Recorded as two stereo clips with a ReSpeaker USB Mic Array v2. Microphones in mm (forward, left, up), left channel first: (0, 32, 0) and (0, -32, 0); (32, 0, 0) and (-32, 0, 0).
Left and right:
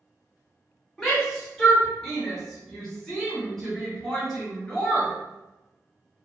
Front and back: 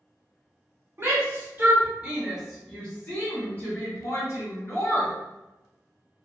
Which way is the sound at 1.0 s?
175° left.